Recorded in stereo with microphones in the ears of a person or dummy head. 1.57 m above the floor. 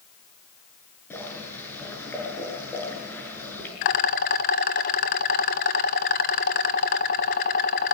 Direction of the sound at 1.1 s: 15° left (ahead or behind).